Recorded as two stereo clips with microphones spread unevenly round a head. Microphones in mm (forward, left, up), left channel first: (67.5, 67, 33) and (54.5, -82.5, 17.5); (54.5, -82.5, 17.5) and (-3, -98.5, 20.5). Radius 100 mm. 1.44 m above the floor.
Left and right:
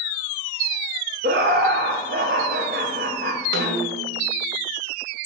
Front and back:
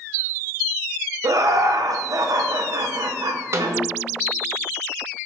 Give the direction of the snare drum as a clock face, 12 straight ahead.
4 o'clock.